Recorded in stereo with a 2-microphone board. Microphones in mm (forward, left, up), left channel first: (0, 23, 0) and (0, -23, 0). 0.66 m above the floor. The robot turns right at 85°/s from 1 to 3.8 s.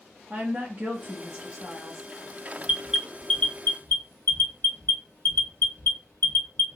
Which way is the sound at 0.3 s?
95° right.